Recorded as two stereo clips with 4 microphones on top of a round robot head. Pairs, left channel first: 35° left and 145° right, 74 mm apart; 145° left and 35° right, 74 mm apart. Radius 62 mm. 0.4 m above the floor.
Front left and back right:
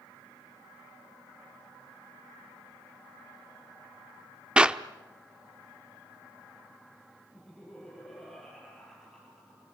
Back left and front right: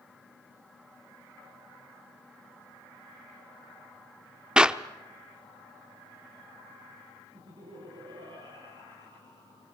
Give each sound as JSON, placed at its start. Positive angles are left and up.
{"t": 4.6, "sound": "a clap", "azimuth_deg": -90, "distance_m": 1.0}
{"t": 7.3, "sound": "laughter", "azimuth_deg": -55, "distance_m": 9.5}